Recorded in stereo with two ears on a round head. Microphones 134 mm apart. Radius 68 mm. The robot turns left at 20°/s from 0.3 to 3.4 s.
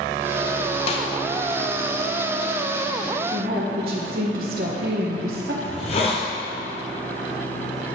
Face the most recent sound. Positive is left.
turn(degrees=40)  # may be behind; listen again after turning